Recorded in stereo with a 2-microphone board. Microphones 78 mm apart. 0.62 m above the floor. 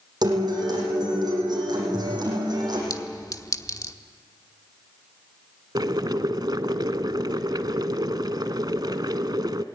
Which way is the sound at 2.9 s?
45° left (ahead or behind).